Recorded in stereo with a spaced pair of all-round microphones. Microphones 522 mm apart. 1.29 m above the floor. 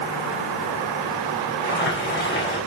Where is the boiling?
20° left (ahead or behind), 5.5 m.